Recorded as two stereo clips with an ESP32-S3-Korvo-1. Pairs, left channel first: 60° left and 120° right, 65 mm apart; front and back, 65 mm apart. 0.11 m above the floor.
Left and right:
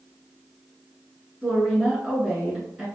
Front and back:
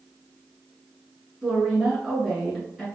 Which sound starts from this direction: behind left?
A woman speaking, at 1.4 s.